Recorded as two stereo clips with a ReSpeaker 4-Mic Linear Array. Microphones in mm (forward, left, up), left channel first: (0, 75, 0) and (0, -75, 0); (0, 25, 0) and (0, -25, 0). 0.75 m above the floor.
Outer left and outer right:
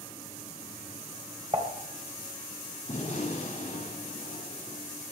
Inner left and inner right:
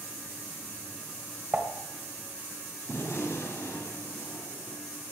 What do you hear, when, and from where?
1.5 s dishes clattering: 35° right (ahead or behind), 2.5 m
2.9 s a gunshot: 45° left (ahead or behind), 6.5 m